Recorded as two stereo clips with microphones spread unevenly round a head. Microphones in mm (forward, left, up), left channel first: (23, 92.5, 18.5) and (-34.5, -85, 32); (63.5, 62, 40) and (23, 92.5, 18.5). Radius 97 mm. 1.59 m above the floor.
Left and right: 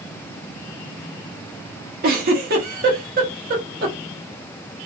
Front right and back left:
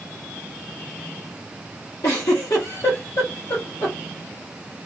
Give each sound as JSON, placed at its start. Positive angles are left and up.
{"t": 2.0, "sound": "a giggle", "azimuth_deg": -65, "distance_m": 0.9}